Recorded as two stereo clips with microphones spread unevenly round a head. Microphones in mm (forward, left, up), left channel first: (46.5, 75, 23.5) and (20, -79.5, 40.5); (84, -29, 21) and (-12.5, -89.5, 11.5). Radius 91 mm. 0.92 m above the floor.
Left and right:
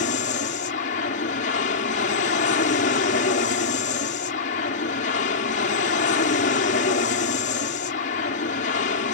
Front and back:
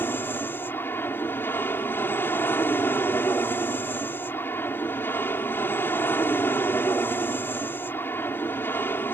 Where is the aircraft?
110° left.